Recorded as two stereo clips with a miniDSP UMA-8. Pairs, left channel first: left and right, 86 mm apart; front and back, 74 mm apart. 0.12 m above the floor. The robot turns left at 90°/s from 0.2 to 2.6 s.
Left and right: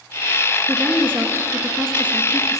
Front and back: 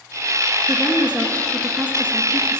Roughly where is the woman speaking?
Ahead.